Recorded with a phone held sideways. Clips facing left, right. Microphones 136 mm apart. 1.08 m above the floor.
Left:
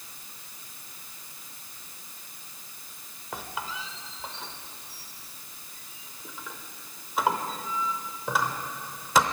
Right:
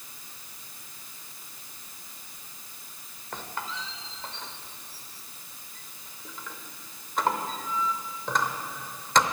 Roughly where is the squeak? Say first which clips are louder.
Even; centre.